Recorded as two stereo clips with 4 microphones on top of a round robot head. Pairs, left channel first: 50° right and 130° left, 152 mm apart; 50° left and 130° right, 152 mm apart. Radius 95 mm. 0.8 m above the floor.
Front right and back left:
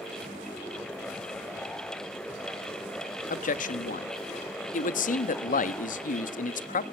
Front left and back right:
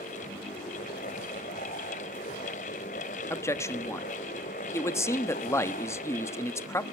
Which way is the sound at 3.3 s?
20° right.